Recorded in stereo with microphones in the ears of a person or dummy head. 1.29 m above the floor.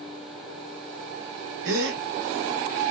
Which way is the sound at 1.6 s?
70° right (ahead or behind).